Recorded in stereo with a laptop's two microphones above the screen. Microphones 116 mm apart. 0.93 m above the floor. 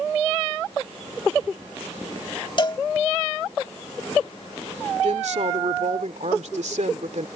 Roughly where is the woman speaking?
Right.